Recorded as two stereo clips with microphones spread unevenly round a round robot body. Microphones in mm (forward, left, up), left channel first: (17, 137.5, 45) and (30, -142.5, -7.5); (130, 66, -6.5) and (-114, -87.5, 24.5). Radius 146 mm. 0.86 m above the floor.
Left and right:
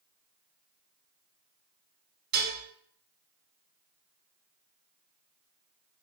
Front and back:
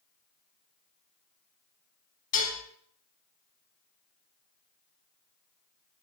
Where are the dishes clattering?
30° right, 4.5 m.